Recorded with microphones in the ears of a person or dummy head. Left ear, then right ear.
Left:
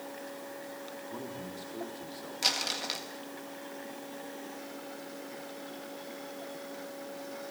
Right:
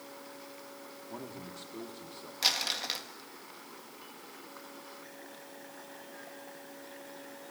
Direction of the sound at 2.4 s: 5° right (ahead or behind).